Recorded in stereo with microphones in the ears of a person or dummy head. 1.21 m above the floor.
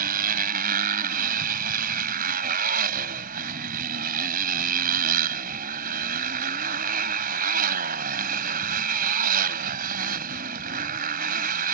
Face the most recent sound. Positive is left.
turn(degrees=-45)  # may be behind; listen again after turning